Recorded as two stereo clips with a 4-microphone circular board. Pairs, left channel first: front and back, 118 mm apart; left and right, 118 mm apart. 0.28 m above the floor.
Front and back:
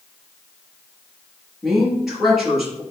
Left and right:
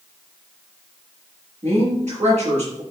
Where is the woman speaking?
95° right, 4.5 m.